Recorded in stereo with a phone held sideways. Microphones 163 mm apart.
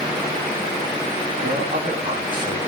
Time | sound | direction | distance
1.4 | a man speaking | 55° right (ahead or behind) | 2 m